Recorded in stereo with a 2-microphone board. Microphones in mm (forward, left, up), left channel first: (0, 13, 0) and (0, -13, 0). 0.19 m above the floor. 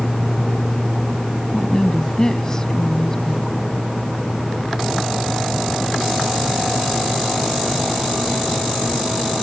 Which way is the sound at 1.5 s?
25° left (ahead or behind).